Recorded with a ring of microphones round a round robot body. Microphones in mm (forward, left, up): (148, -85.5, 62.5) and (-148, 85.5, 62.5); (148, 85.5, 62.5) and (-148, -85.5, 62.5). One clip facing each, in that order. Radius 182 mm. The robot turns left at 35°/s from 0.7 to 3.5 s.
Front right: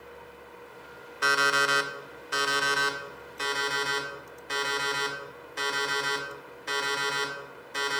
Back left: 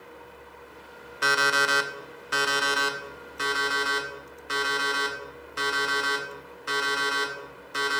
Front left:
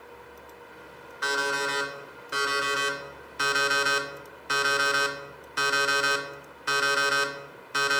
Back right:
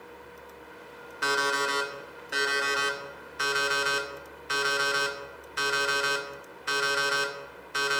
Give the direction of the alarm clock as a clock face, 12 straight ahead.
7 o'clock.